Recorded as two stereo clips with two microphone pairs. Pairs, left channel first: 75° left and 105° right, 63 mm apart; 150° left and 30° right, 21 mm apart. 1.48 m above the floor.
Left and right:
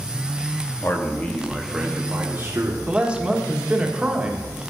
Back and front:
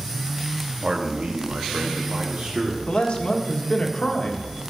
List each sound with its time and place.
0.8 s a man speaking: 25° left, 1.2 m; by 2.8 s 60° right, 1.6 m
2.9 s a man speaking: 175° right, 1.4 m